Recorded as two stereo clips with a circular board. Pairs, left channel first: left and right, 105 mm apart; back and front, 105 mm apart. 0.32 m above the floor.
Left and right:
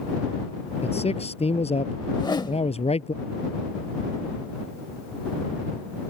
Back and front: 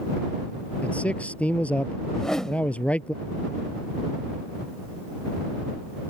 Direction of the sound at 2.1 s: 95° left.